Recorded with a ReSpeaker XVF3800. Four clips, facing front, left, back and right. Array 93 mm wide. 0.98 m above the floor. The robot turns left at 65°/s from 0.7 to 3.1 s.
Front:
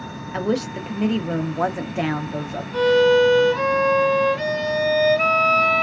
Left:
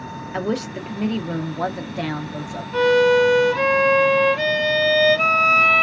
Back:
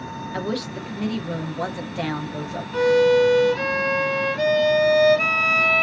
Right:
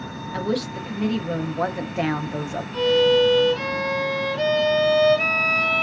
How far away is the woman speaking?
About 0.6 m.